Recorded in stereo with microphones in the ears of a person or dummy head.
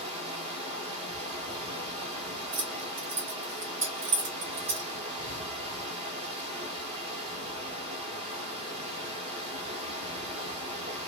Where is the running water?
40° right (ahead or behind), 0.9 m.